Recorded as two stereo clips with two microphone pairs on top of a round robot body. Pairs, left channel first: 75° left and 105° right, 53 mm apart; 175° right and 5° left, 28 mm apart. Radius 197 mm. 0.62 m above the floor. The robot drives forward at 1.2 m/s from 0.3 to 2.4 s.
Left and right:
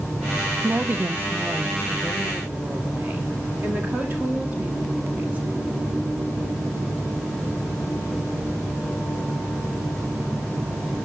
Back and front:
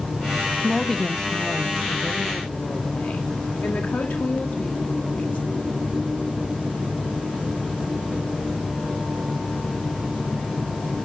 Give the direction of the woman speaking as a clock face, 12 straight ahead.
2 o'clock.